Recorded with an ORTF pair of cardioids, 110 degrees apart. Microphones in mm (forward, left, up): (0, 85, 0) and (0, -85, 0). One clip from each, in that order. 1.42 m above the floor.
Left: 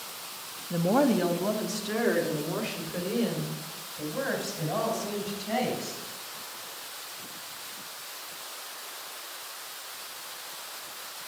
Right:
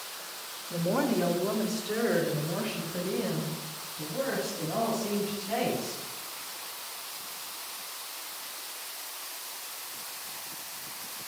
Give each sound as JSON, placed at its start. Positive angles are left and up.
{"t": 0.7, "sound": "a woman speaking", "azimuth_deg": 45, "distance_m": 1.3}